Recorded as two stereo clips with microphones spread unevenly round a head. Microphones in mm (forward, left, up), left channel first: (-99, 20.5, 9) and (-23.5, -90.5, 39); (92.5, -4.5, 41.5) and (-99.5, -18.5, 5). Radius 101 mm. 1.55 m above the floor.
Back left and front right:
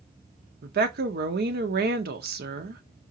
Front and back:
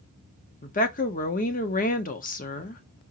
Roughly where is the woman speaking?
Ahead right.